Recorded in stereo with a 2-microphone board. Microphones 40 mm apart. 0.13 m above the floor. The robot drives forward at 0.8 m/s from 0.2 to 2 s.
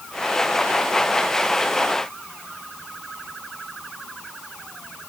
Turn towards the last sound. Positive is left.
No sound to turn to.